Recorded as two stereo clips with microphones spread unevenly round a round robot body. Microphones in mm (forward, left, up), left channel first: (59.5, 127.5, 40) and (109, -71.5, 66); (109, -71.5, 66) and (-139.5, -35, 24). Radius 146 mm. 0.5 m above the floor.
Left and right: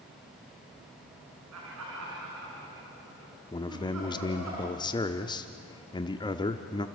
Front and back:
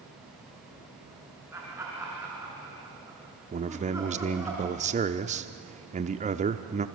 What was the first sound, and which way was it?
Laughter, 110° right.